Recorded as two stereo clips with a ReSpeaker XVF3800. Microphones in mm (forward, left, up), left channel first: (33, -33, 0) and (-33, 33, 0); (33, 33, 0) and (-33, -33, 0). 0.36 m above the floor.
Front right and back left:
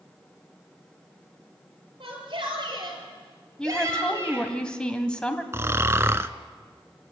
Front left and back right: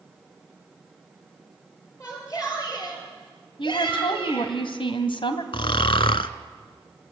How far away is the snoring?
About 0.8 m.